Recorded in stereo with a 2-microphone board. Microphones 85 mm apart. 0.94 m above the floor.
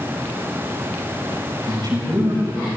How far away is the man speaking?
About 5.5 m.